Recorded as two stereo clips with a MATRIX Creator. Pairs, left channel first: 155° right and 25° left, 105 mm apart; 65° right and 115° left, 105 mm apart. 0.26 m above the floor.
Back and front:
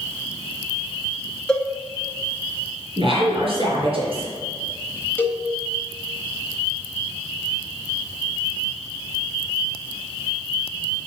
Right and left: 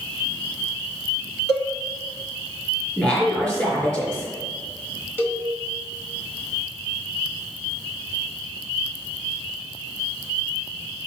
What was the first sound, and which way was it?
A cowbell, 75° right.